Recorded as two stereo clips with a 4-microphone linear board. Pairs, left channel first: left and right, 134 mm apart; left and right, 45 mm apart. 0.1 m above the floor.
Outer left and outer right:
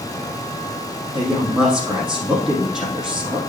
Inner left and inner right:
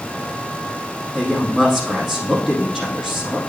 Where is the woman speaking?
5° right (ahead or behind), 4 m.